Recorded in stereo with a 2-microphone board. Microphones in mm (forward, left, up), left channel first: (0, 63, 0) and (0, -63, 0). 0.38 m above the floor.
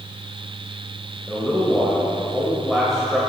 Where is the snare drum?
No snare drum in this recording.